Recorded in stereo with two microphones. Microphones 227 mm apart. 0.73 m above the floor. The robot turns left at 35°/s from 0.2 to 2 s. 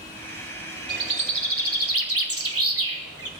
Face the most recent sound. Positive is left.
turn(degrees=-85)